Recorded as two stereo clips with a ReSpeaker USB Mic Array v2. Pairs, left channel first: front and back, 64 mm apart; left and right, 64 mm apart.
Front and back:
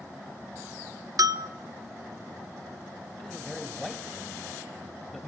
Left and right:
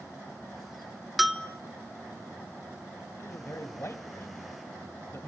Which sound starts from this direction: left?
A man speaking, at 3.2 s.